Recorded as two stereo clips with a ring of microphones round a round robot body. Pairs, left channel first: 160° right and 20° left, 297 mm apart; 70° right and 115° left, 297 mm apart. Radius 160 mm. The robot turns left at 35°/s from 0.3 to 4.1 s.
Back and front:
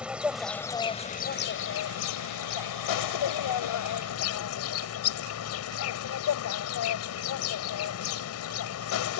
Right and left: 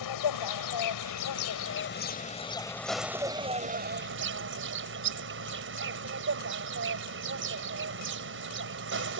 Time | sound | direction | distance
0.0 | an insect | 65° right | ?